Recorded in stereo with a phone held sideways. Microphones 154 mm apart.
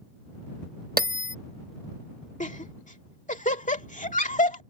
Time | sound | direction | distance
1.0 | a bell | 75° right (ahead or behind) | ?
2.4 | laughter | 55° left (ahead or behind) | ?